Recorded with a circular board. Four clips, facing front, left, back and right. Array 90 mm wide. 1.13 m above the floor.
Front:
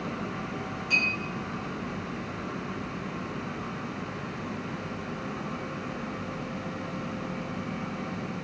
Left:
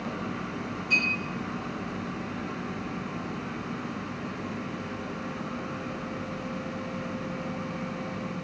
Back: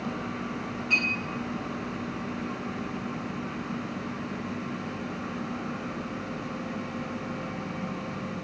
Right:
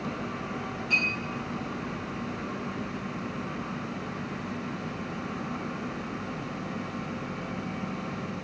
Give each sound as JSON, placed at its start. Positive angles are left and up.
{"t": 0.9, "sound": "a clink", "azimuth_deg": -145, "distance_m": 3.0}